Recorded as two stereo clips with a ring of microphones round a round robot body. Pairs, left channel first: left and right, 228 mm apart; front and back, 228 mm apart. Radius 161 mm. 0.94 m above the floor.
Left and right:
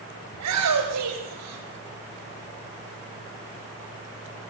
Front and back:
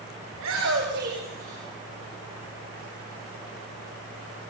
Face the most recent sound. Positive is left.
turn(degrees=-110)